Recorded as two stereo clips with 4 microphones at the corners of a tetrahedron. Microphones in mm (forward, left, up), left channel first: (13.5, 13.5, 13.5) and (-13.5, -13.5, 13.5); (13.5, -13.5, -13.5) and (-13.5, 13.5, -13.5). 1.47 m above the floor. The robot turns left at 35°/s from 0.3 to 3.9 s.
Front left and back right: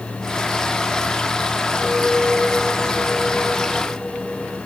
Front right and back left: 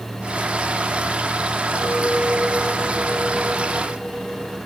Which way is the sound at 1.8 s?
160° left.